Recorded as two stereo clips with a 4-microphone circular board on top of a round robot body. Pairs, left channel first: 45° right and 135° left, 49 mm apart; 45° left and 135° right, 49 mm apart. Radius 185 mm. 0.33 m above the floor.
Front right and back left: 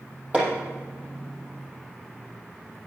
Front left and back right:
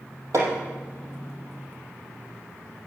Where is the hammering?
160° right, 5 m.